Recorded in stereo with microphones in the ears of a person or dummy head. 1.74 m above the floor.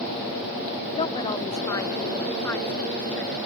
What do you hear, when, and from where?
1.0 s a woman speaking: 25° left (ahead or behind); by 3.4 s centre (ahead or behind)